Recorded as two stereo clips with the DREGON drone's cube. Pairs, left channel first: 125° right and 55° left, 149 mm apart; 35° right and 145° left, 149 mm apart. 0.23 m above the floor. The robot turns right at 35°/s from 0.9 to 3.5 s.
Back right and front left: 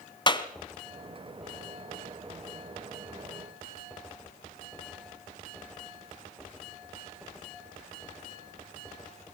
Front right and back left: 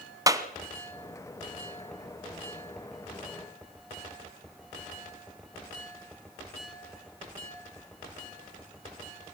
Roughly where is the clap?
Behind.